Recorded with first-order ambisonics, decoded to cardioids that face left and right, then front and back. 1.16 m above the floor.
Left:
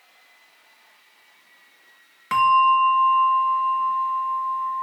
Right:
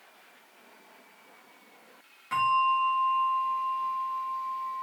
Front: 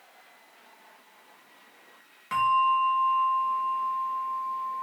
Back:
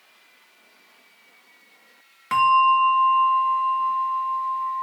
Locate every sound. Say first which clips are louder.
2.3 s a bell: left 8 dB, back 6 dB; 125° left, 0.7 m